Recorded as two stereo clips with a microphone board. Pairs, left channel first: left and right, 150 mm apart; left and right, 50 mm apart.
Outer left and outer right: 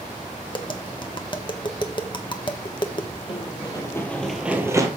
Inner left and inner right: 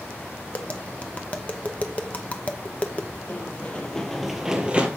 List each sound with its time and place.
0.5 s tapping: 35° left (ahead or behind), 0.9 m
3.3 s running footsteps: 40° left (ahead or behind), 2.5 m; by 4.9 s 25° right (ahead or behind), 2.0 m